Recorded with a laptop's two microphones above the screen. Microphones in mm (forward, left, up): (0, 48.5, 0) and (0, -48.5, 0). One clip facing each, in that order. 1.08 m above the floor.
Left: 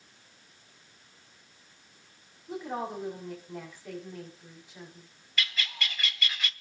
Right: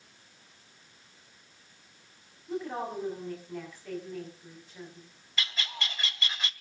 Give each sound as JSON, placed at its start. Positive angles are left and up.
{"t": 2.5, "sound": "a woman speaking", "side_deg": 10, "distance_m": 6.0}
{"t": 5.4, "sound": "a bird", "side_deg": -25, "distance_m": 0.8}